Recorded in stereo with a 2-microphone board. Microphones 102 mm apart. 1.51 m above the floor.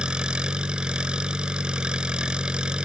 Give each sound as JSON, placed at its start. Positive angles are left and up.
{"t": 0.0, "sound": "an engine running", "side_deg": -10}